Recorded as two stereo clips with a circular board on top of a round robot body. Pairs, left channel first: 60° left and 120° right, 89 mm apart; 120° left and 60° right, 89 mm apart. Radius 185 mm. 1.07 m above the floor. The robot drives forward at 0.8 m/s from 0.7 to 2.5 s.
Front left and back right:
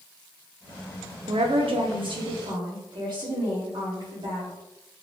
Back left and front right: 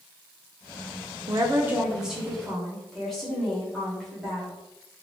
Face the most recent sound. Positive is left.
turn(degrees=-155)